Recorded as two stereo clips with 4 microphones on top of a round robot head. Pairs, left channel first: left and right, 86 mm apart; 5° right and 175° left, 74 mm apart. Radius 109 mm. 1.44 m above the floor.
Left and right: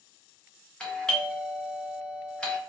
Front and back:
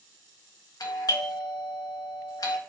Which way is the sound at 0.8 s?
15° left.